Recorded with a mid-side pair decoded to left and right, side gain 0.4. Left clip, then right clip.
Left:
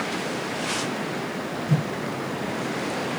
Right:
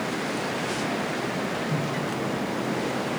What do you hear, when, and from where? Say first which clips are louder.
1.7 s a whoosh: even; 65° left, 1.3 m